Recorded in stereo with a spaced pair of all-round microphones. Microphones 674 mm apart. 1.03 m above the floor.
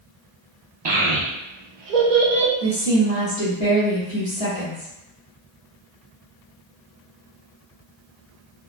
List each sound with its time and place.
0.8 s a child speaking: 40° right (ahead or behind), 0.7 m; by 2.5 s 65° right (ahead or behind), 0.9 m
2.6 s a woman speaking: 40° left (ahead or behind), 1.2 m